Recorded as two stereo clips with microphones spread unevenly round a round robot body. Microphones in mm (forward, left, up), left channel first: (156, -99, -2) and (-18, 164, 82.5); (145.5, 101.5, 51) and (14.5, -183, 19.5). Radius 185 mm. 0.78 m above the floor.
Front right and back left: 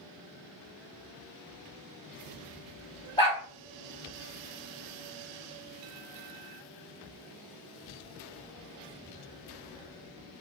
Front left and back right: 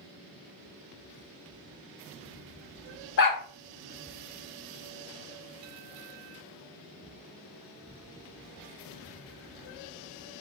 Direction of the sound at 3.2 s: 20° left.